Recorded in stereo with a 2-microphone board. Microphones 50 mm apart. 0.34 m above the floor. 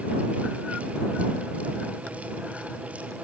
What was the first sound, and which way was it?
Only background noise.